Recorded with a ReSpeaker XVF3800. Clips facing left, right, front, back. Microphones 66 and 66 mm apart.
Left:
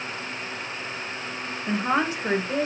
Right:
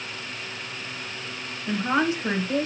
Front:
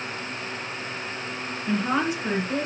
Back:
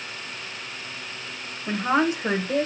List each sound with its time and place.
1.7 s a woman speaking: 130° left, 1.2 m; by 2.7 s 165° left, 1.3 m